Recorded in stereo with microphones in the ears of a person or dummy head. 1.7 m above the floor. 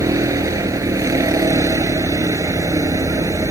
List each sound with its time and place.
0.0 s a vehicle: 20° right (ahead or behind)